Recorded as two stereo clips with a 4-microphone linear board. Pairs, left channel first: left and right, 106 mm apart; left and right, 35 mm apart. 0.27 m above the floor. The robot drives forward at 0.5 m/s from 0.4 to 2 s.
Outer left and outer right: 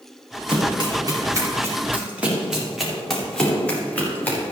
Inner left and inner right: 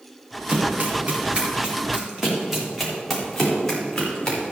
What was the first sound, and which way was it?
Running footsteps, 50° right (ahead or behind).